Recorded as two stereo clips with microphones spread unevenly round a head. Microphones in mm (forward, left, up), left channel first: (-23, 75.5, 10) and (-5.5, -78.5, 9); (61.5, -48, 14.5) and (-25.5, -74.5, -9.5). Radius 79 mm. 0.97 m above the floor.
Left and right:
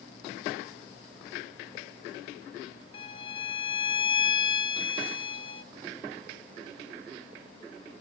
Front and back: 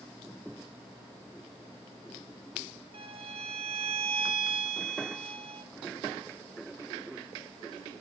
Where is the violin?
155° left, 0.8 m.